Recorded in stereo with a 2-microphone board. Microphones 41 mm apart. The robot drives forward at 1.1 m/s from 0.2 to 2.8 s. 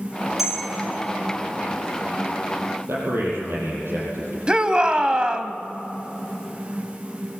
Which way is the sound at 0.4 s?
5° right (ahead or behind).